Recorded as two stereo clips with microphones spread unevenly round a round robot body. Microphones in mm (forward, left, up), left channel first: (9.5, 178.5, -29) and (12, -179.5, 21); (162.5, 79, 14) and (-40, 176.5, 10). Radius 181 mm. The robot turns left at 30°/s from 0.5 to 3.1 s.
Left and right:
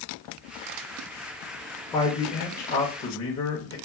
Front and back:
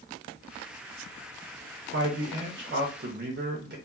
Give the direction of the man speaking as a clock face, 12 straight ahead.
7 o'clock.